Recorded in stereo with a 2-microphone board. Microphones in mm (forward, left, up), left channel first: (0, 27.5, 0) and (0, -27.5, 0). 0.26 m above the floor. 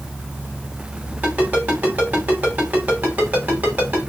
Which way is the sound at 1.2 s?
30° right (ahead or behind).